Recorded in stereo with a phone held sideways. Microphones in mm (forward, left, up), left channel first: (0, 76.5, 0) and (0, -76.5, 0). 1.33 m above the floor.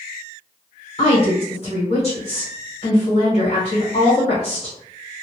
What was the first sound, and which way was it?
A woman speaking, 45° left (ahead or behind).